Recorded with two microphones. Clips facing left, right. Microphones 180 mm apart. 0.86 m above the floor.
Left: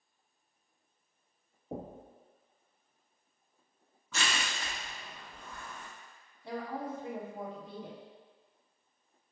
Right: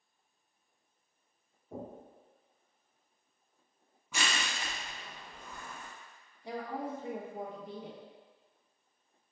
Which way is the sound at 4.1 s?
15° right (ahead or behind).